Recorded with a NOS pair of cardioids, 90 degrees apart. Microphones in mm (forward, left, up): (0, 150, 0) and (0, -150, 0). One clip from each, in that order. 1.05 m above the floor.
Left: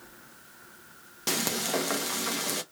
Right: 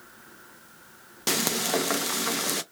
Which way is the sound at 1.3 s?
15° right.